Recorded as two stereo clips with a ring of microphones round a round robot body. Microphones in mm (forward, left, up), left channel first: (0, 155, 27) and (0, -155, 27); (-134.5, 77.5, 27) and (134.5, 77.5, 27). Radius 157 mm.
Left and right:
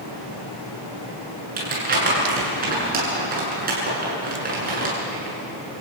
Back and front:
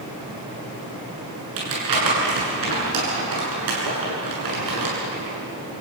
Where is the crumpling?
25° right, 8.5 m.